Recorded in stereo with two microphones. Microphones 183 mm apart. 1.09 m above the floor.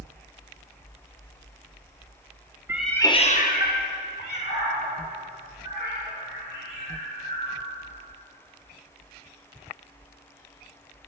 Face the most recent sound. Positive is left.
turn(degrees=70)  # may be behind; listen again after turning